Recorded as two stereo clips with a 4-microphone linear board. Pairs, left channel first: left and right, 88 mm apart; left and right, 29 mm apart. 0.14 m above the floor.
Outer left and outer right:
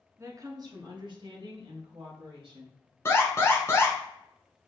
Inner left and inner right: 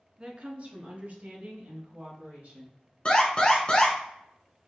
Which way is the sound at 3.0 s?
30° left (ahead or behind).